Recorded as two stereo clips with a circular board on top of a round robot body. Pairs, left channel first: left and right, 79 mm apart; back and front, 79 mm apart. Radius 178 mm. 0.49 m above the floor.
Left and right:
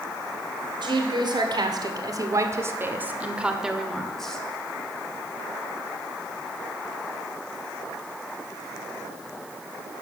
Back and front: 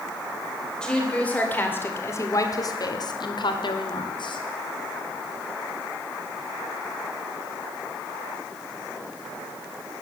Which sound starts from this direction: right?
A woman speaking, at 0.8 s.